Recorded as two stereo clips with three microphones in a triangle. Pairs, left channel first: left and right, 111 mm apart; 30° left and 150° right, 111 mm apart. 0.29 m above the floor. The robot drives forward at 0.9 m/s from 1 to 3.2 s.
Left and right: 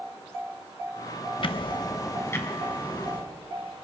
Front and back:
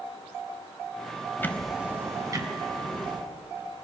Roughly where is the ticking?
Left.